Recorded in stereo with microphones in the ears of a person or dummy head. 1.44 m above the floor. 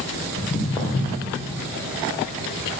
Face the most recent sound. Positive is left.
turn(degrees=25)  # may be behind; listen again after turning